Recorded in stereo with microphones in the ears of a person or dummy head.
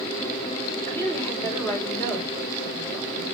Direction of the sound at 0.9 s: 10° left (ahead or behind).